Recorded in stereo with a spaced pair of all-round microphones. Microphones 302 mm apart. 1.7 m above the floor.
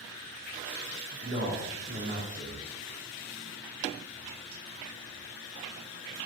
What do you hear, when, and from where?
1.2 s a man speaking: 35° right (ahead or behind), 2.5 m